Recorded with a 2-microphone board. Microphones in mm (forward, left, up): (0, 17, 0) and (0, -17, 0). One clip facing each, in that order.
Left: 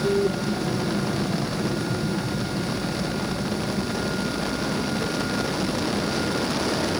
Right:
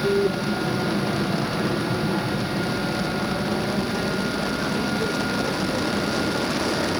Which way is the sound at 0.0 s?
15° right (ahead or behind).